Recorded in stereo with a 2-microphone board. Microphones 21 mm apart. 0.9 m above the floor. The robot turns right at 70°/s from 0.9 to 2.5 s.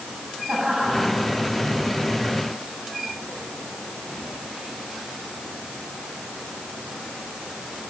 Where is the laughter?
75° right (ahead or behind), 8 m; by 1.2 s 55° right (ahead or behind), 8 m.